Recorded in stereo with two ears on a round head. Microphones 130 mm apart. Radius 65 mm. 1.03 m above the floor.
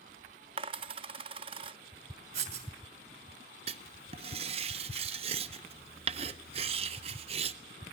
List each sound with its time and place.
0.6 s a dropped coin: 35° right (ahead or behind), 0.5 m
2.3 s writing: 50° right (ahead or behind), 2.5 m
3.7 s writing: 45° right (ahead or behind), 0.7 m